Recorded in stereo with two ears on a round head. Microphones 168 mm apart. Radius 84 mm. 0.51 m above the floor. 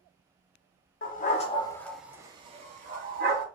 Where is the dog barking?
50° left (ahead or behind), 0.7 m; by 3.5 s 55° right (ahead or behind), 1.0 m.